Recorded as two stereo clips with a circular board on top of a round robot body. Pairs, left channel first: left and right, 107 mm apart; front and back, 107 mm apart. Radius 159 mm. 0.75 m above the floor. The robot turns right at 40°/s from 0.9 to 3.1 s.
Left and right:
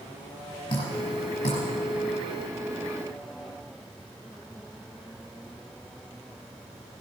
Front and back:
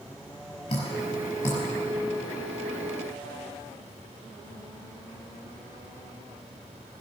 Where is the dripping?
45° left, 5 m; by 1.6 s 75° left, 5 m.